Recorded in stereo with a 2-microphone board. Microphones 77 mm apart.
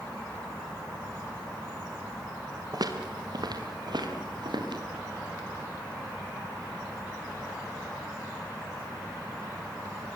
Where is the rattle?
No rattle in this recording.